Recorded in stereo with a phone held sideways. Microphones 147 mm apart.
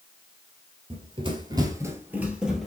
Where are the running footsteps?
40° right (ahead or behind), 1.0 m; by 2.7 s centre (ahead or behind), 1.1 m.